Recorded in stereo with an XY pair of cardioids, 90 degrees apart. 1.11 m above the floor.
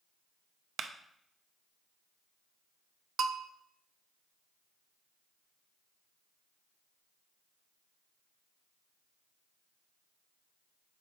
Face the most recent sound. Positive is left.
turn(degrees=-65)